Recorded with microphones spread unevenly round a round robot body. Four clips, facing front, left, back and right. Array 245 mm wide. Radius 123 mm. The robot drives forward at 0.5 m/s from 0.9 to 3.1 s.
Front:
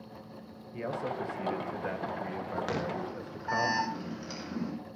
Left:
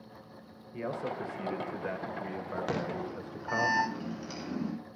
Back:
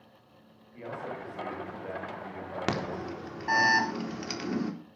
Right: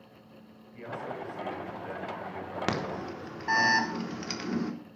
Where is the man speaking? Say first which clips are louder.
Left 3 dB, front 4 dB; 35° left, 4 m; by 3.7 s 45° left, 3 m.